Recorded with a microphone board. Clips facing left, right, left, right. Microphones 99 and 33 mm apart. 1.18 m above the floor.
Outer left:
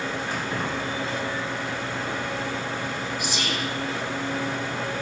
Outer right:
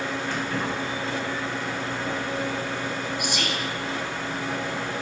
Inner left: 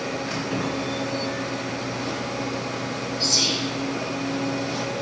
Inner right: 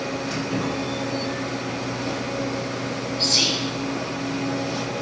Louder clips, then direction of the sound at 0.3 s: Outer right 1 dB, inner right 2 dB; 15° left (ahead or behind).